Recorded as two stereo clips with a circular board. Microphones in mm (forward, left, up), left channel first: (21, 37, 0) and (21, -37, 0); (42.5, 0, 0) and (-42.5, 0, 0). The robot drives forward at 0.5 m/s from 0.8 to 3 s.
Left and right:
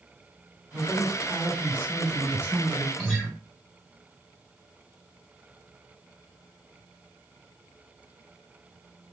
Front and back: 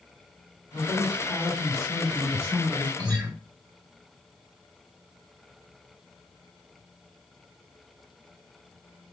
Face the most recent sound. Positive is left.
turn(degrees=170)